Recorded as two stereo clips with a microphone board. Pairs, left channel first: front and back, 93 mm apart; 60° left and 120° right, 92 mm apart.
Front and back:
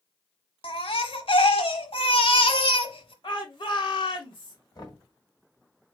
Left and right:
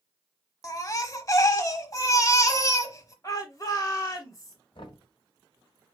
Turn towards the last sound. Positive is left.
turn(degrees=40)